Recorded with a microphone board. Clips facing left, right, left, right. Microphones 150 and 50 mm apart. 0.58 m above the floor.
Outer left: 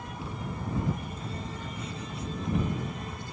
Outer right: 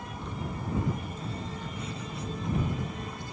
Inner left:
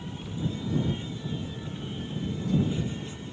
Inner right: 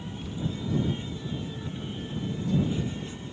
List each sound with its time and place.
0.2 s knocking: 5° left (ahead or behind)